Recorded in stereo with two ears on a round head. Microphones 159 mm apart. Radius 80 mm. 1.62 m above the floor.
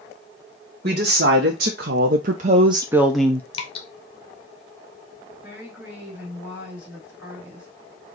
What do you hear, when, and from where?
0.8 s a woman speaking: 55° right (ahead or behind), 1.4 m; by 3.4 s 10° left (ahead or behind), 0.7 m
3.5 s dripping: 30° left (ahead or behind), 1.0 m
5.4 s a woman speaking: 10° right (ahead or behind), 3 m